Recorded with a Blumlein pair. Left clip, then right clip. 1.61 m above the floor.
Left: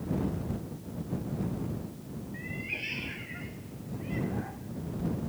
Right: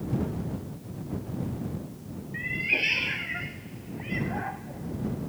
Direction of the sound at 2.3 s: 25° right.